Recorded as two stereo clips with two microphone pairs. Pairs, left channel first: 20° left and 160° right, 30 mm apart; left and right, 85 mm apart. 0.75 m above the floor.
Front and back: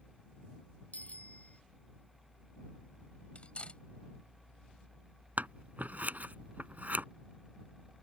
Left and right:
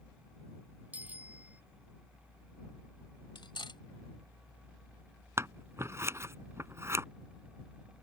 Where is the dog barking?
I don't hear a dog barking.